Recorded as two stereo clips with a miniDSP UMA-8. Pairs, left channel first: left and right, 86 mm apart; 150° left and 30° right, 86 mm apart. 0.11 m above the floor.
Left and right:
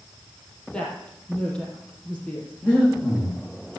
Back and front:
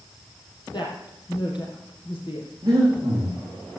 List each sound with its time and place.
0.7 s a woman speaking: 170° left, 4 m
2.6 s breathing: 25° left, 5 m